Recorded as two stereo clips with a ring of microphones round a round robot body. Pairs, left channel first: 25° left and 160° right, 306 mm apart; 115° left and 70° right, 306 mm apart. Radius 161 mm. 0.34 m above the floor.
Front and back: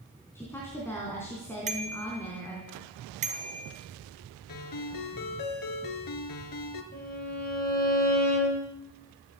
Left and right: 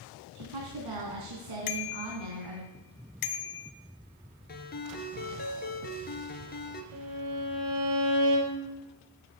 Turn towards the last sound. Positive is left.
turn(degrees=-40)